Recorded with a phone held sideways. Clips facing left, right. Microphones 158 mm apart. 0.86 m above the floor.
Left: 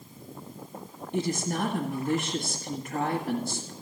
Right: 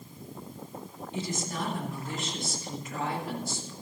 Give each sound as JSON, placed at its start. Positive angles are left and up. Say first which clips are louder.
{"t": 1.1, "sound": "a woman speaking", "louder": "left 6 dB", "side_deg": 60, "distance_m": 1.6}